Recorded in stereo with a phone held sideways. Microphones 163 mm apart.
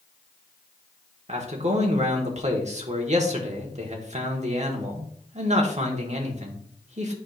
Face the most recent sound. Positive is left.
turn(degrees=-45)  # may be behind; listen again after turning